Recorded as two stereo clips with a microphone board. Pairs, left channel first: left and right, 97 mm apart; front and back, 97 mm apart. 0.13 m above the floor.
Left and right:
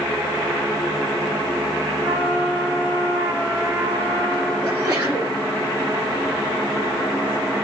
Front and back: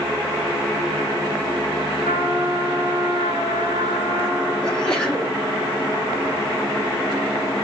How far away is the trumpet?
About 3 m.